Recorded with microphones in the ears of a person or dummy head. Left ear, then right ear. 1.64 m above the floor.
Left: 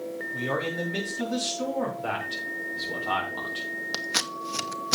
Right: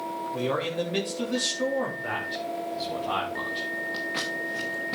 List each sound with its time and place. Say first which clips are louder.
0.3 s a man speaking: right 1 dB; 10° right (ahead or behind), 3.5 m
2.0 s a man speaking: even; 25° left (ahead or behind), 4.5 m
3.9 s scissors: left 1 dB; 75° left (ahead or behind), 1.2 m